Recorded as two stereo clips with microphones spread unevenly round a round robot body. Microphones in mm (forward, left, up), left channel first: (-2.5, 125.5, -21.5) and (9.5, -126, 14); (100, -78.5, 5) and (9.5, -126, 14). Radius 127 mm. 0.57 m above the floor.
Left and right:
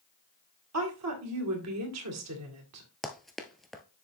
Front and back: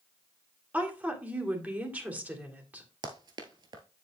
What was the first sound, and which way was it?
A woman speaking, 75° right.